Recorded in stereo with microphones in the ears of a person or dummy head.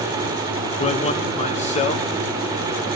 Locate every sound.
0.8 s a man speaking: 30° left (ahead or behind), 1.2 m